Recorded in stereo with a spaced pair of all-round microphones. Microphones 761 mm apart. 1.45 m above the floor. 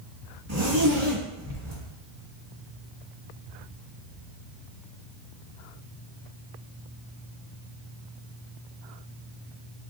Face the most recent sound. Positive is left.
turn(degrees=-20)  # may be behind; listen again after turning